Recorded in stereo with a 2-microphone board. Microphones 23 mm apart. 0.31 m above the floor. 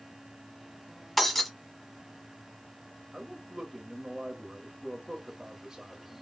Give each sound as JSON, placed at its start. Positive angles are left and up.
{"t": 1.2, "sound": "breaking glass", "side_deg": 10, "distance_m": 1.2}
{"t": 3.1, "sound": "a man speaking", "side_deg": -30, "distance_m": 1.4}